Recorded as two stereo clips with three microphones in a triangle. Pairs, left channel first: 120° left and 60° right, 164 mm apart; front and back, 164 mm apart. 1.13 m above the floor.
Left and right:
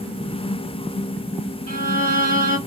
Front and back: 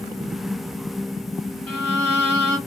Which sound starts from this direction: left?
A violin, at 1.7 s.